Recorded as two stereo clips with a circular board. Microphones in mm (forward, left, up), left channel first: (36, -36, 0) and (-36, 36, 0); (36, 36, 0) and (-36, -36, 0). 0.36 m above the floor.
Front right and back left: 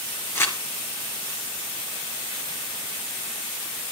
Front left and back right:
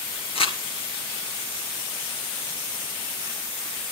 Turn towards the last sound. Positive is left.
turn(degrees=20)